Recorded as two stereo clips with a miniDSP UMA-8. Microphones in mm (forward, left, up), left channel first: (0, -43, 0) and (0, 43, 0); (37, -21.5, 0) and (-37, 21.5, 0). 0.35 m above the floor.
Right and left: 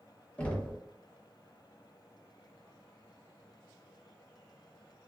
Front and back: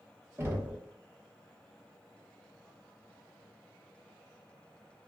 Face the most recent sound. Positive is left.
turn(degrees=-160)